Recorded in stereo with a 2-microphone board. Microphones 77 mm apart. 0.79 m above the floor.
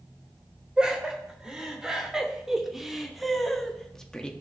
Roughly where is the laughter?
Centre.